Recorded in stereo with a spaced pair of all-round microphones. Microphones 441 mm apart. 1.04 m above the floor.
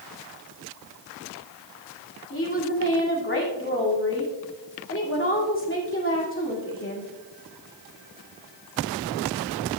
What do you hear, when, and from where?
2.3 s a woman speaking: 30° left (ahead or behind), 2.5 m